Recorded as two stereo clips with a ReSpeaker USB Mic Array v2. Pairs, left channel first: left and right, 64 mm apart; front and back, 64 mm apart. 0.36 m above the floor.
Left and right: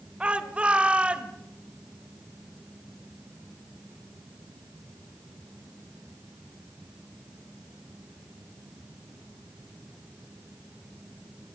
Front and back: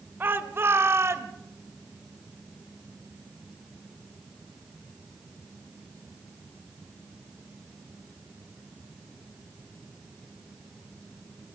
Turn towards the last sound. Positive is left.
turn(degrees=-155)